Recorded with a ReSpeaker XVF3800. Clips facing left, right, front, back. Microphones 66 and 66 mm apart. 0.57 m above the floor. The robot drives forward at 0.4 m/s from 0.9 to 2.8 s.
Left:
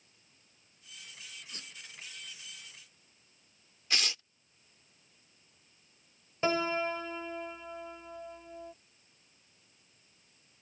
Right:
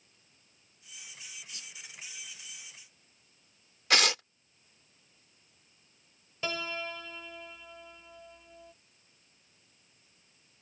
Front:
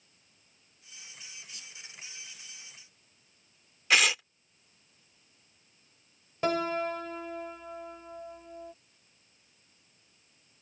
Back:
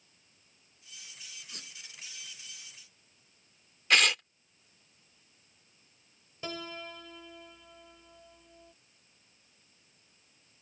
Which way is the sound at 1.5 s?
140° left.